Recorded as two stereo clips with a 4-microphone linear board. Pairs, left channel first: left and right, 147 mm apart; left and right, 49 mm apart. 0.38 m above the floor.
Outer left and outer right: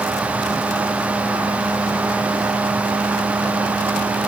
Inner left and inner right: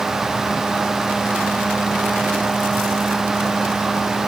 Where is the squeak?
No squeak in this recording.